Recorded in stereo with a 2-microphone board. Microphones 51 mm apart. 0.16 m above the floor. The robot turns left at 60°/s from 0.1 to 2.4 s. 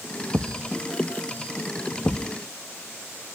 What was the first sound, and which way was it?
A thud, 50° right (ahead or behind).